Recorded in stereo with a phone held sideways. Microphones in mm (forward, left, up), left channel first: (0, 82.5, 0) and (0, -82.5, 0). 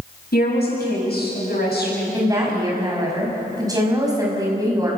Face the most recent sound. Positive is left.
turn(degrees=-20)  # may be behind; listen again after turning